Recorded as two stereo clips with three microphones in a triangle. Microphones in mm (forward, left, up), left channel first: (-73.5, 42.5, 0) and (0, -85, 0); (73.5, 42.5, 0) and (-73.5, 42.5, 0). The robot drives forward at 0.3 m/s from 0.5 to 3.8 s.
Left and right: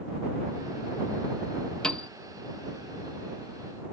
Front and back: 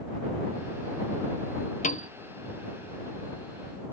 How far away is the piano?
About 0.7 m.